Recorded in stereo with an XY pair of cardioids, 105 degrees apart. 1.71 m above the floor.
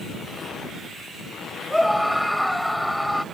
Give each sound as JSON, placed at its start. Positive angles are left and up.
{"t": 1.7, "sound": "a scream", "azimuth_deg": 5}